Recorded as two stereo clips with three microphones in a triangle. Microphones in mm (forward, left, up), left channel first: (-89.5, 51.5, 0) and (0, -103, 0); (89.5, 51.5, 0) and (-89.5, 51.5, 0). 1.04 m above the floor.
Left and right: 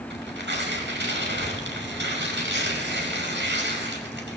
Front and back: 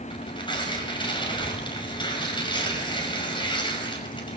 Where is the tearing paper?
65° right, 5.5 m.